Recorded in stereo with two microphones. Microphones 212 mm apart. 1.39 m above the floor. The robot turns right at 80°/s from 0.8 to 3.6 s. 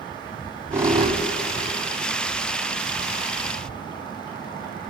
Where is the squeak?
10° right (ahead or behind), 1.6 m; by 2.6 s 15° right (ahead or behind), 1.6 m.